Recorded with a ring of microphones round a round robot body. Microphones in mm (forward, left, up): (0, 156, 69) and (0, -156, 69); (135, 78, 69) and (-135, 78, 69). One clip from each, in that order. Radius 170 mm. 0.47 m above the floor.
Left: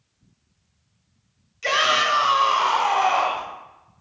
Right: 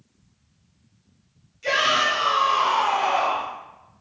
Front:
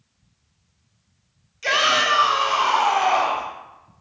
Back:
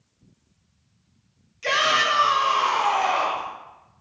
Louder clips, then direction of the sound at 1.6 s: Left 1 dB, front 2 dB; 80° left.